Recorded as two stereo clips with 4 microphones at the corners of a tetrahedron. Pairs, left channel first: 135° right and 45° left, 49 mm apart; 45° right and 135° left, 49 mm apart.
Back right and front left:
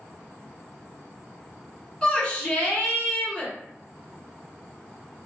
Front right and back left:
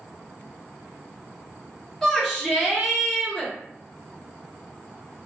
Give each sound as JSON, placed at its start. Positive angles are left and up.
{"t": 2.0, "sound": "a shout", "azimuth_deg": -115, "distance_m": 1.1}